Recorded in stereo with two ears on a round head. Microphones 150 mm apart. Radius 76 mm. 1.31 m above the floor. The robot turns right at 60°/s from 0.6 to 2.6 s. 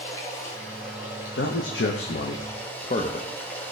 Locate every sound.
0.0 s running water: 50° left, 2.5 m; by 3.7 s 170° left, 2.5 m
1.4 s a man speaking: 60° left (ahead or behind), 0.9 m; by 3.3 s 40° left (ahead or behind), 0.9 m